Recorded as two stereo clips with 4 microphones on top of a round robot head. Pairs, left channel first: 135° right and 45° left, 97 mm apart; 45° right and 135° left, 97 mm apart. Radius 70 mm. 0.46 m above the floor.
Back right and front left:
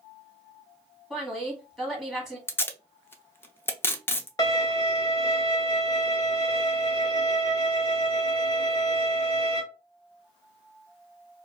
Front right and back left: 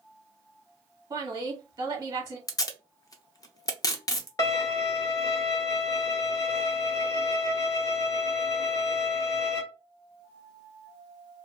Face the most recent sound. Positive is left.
turn(degrees=-85)